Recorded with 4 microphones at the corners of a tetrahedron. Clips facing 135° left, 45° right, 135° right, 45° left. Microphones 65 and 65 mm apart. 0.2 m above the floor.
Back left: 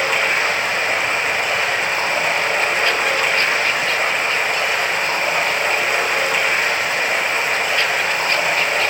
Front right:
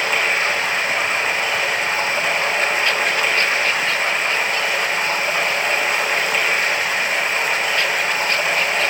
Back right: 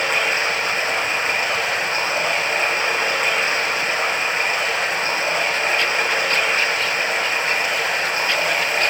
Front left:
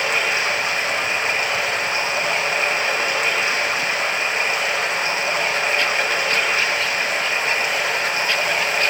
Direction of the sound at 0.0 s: 170° left.